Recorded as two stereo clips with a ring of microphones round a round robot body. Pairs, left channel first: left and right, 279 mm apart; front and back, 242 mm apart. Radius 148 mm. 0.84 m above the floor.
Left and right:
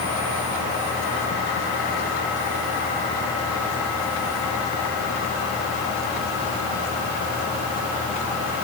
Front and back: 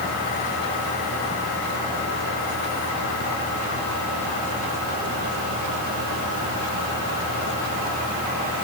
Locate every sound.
Only background noise.